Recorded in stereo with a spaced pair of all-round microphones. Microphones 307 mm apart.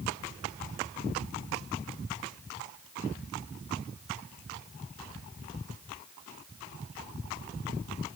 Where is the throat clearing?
I don't hear throat clearing.